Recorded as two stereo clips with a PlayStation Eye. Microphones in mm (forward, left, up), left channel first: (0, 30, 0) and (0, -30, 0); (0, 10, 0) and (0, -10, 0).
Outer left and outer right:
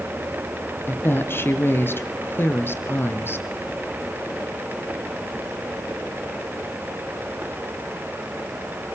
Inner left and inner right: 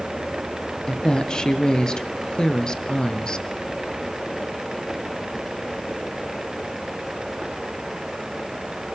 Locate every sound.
0.9 s a woman speaking: 40° left (ahead or behind), 2 m